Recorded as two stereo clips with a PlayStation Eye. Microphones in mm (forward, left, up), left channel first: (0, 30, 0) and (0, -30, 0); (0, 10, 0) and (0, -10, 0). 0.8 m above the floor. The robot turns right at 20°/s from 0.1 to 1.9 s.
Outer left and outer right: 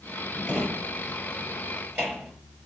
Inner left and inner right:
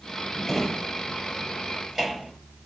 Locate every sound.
0.5 s a drawer: centre (ahead or behind), 6 m; by 2.3 s 30° right (ahead or behind), 6 m